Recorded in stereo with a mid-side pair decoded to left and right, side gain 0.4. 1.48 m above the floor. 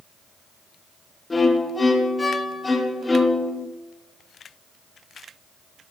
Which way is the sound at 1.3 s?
25° left.